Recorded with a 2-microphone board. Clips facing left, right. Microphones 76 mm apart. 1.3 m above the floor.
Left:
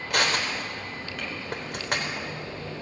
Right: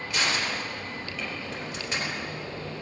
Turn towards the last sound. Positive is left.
turn(degrees=55)  # may be behind; listen again after turning